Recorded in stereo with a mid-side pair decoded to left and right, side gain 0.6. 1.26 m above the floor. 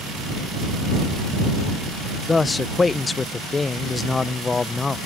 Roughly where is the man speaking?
Ahead.